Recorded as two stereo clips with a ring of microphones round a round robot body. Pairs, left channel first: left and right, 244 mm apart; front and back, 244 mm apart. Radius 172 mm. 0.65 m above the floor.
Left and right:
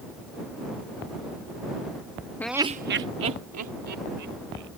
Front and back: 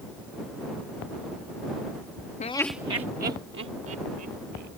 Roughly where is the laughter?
Ahead.